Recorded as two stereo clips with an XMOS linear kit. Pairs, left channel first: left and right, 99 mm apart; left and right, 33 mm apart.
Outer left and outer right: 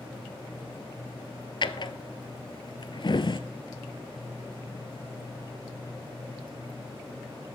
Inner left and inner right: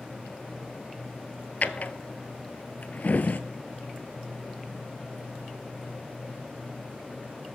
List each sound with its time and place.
1.6 s a drawer: 55° left (ahead or behind), 0.6 m